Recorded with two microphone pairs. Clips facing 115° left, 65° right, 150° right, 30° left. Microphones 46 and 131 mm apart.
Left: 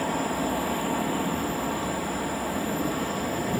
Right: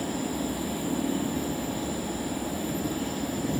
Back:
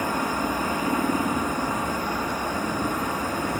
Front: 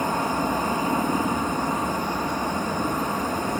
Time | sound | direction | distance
0.0 | an aircraft | 90° left | ?